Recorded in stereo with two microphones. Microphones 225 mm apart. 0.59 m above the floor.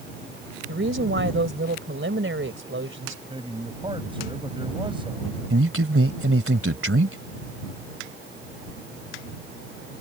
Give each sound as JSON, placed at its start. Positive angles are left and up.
{"t": 0.7, "sound": "a woman speaking", "side_deg": -60}
{"t": 3.3, "sound": "a man speaking", "side_deg": -25}
{"t": 5.5, "sound": "a man speaking", "side_deg": -70}